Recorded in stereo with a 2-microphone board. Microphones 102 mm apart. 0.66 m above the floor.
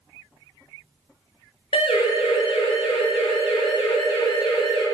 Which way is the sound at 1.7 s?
75° left (ahead or behind).